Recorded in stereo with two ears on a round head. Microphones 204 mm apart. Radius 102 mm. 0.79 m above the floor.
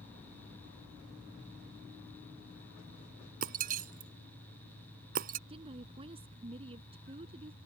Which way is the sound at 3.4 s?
40° right (ahead or behind).